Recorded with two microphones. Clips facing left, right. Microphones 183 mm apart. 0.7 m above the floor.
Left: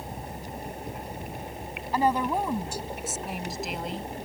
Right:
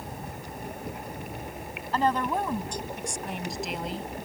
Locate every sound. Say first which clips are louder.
1.9 s a woman speaking: left 1 dB; 10° left (ahead or behind); by 4.1 s 5° right (ahead or behind)